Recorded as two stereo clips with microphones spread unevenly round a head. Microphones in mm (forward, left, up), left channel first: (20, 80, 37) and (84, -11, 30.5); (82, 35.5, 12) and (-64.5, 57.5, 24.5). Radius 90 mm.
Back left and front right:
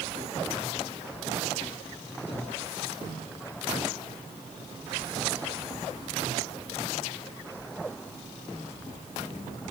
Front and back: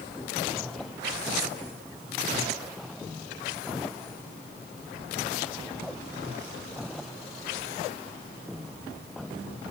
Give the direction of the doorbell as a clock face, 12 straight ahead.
I don't hear a doorbell.